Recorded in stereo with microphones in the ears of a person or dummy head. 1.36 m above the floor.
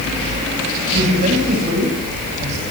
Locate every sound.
0.9 s a man speaking: 45° right (ahead or behind), 8 m